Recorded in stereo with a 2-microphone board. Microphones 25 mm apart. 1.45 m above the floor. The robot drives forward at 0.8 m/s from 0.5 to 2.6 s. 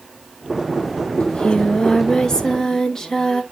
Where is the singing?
50° left (ahead or behind), 0.8 m; by 3.4 s 20° left (ahead or behind), 1.6 m.